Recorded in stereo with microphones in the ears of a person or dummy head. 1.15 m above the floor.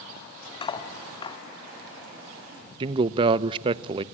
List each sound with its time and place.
0.6 s cutlery clinking: 30° left (ahead or behind), 1.6 m
2.8 s a man speaking: 30° right (ahead or behind), 0.6 m